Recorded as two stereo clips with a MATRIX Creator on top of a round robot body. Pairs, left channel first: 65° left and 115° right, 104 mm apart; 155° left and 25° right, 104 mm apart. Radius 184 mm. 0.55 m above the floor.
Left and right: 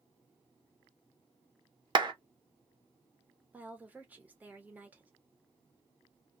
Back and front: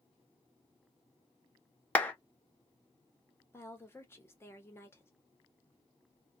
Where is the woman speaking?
170° right, 1.3 m.